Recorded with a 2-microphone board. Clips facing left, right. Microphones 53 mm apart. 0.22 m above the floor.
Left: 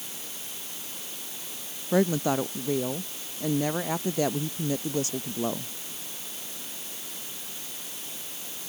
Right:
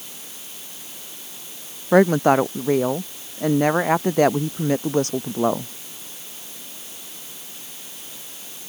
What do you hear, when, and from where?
1.9 s a woman speaking: 55° right (ahead or behind)